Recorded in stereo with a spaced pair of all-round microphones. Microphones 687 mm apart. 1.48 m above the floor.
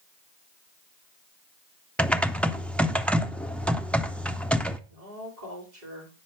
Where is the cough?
No cough in this recording.